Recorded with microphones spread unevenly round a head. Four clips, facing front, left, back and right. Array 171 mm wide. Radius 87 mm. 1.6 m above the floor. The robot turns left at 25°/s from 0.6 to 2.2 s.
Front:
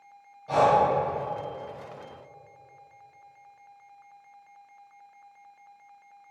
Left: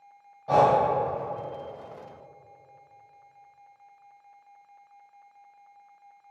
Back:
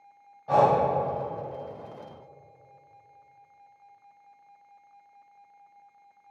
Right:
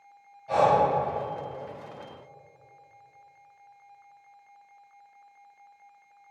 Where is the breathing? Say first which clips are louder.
Left 2 dB, even; 85° left, 1.0 m; by 0.8 s 80° left, 1.0 m.